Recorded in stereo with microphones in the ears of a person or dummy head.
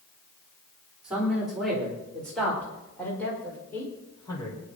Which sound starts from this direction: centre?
A man speaking, at 1.0 s.